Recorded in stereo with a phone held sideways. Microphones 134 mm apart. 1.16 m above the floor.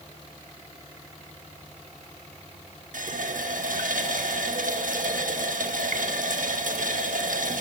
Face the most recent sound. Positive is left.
turn(degrees=-80)